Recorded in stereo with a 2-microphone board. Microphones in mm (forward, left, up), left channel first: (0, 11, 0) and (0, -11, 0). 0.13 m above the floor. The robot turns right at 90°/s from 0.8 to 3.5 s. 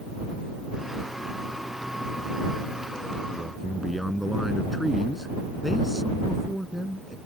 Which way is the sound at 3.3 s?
5° right (ahead or behind).